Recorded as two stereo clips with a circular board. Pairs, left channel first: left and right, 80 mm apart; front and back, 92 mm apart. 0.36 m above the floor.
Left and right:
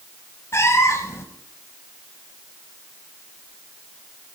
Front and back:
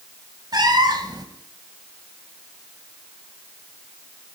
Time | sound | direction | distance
0.5 | a cat meowing | 140° left | 1.0 m